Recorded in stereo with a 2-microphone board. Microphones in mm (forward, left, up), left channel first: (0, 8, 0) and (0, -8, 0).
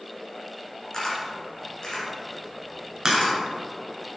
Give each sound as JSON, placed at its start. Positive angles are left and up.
{"t": 0.9, "sound": "a camera shutter", "side_deg": 40, "distance_m": 2.5}
{"t": 3.0, "sound": "a crack", "side_deg": -35, "distance_m": 1.6}